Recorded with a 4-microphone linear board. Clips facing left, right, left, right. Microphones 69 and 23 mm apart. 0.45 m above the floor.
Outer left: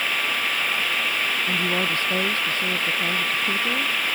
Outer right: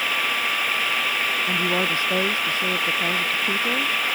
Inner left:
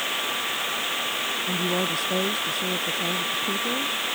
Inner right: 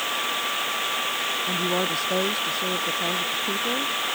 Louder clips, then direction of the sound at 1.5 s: Outer right 2 dB, even; 15° right (ahead or behind).